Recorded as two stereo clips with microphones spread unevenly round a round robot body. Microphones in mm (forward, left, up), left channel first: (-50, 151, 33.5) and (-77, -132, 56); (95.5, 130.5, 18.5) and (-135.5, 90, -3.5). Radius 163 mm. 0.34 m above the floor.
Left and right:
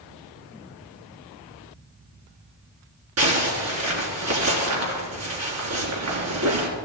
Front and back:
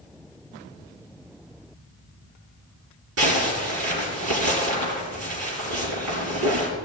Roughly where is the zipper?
Behind right.